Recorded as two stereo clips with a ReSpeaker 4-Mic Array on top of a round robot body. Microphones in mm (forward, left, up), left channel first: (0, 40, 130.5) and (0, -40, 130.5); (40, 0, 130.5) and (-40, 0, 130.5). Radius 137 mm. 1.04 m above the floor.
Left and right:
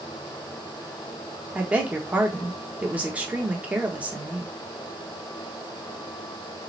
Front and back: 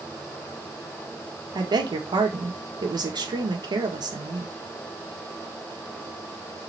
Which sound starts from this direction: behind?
A woman speaking, at 1.6 s.